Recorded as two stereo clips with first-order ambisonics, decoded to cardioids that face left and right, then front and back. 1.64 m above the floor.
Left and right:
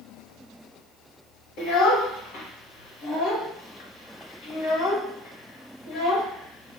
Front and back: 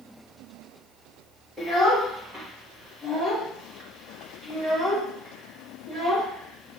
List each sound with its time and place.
1.6 s a child speaking: 100° left, 1.4 m